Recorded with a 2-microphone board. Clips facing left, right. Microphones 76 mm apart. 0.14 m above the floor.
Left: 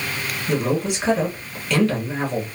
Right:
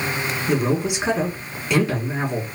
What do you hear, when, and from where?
0.5 s a man speaking: 20° right (ahead or behind), 1.4 m